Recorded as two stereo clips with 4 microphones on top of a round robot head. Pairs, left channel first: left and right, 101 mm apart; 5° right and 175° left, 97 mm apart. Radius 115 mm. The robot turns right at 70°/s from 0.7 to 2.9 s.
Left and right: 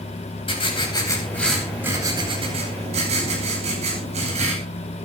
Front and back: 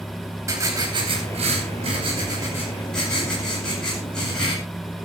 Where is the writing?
120° left, 9.5 m; by 4.5 s 85° right, 9.5 m.